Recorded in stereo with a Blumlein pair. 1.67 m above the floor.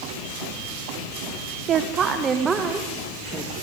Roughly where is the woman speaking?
Ahead right.